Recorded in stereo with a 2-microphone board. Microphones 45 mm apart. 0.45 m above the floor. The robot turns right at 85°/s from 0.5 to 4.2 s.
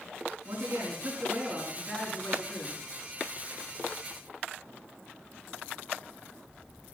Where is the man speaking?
110° right, 6 m; by 2.8 s 85° left, 6 m.